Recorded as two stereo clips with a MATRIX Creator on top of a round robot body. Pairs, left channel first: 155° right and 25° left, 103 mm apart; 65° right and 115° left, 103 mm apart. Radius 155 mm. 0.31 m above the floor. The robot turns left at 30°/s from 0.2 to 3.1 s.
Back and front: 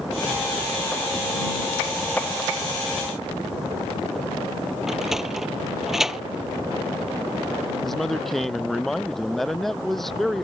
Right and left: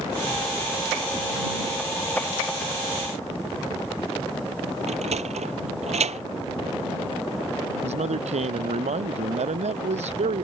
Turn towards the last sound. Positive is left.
turn(degrees=115)